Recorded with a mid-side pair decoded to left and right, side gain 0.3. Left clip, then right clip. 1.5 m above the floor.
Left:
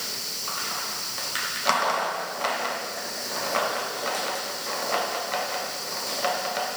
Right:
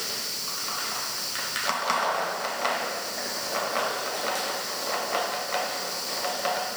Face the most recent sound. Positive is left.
No sound to turn to.